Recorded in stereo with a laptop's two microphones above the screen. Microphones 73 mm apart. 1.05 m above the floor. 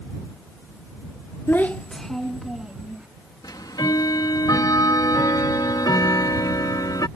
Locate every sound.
1.5 s a child speaking: 35° left (ahead or behind); by 3.1 s 10° right (ahead or behind)
3.4 s ticking: 75° left (ahead or behind)